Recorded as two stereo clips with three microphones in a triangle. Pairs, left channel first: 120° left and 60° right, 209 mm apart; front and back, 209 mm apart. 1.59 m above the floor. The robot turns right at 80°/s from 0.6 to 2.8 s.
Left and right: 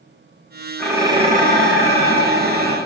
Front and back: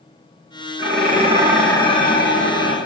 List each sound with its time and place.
0.8 s dishes clattering: 155° right, 1.6 m; by 2.8 s 5° left, 1.6 m